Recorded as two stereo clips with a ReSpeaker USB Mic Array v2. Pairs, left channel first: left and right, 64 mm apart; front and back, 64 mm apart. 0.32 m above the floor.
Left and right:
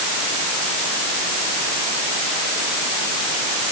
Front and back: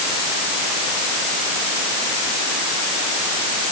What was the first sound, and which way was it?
Only background noise.